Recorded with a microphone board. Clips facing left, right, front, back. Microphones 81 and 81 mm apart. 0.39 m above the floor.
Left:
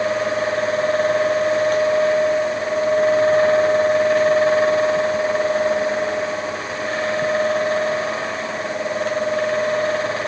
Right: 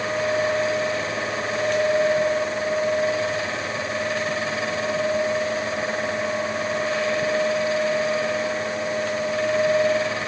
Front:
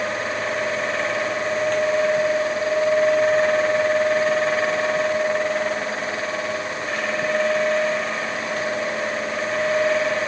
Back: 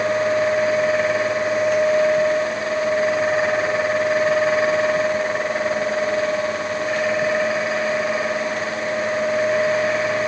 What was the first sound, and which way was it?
Only background noise.